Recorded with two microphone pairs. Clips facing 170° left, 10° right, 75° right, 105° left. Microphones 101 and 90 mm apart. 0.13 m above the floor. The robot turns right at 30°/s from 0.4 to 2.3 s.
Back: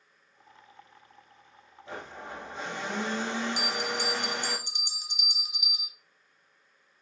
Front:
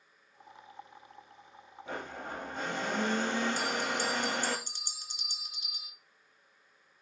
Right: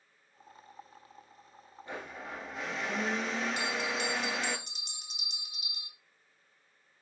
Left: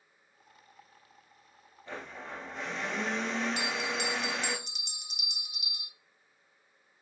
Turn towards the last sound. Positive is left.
turn(degrees=-120)